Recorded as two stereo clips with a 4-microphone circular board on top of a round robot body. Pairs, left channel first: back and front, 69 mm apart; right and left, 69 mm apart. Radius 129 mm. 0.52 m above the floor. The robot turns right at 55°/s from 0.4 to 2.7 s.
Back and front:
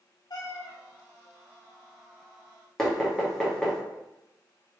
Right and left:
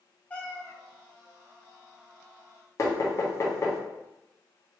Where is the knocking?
100° right, 1.1 m.